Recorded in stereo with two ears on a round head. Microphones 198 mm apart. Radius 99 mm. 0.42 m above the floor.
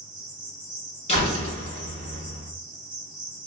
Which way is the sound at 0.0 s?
5° right (ahead or behind).